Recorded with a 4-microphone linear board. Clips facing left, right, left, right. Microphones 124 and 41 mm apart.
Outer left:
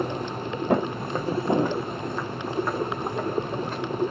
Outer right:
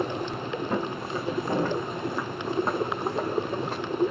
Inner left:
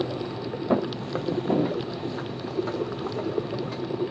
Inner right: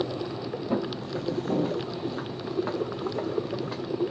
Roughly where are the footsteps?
Left.